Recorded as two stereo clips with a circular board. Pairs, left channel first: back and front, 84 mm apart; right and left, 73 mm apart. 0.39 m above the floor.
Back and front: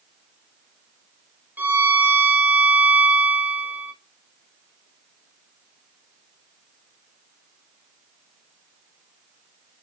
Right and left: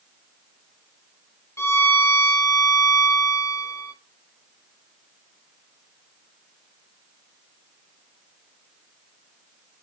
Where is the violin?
60° right, 1.0 m.